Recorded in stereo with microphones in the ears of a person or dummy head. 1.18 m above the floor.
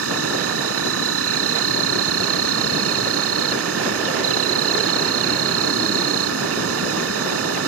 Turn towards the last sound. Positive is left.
turn(degrees=-90)